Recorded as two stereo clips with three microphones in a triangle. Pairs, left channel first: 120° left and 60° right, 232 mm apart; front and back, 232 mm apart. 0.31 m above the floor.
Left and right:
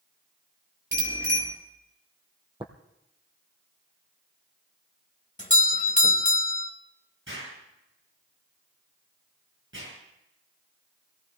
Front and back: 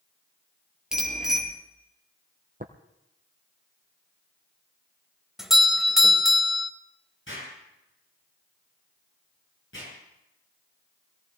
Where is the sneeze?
I don't hear a sneeze.